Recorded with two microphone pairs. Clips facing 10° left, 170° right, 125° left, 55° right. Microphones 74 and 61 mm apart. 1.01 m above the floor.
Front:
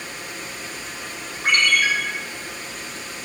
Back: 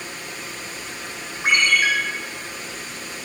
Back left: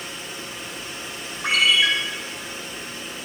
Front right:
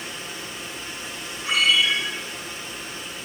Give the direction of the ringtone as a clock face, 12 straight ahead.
8 o'clock.